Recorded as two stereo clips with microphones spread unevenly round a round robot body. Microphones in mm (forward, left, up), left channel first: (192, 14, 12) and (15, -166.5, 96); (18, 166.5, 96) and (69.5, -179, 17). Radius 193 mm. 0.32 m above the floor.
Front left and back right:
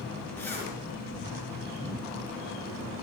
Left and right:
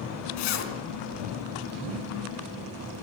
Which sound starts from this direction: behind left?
A zipper, at 0.4 s.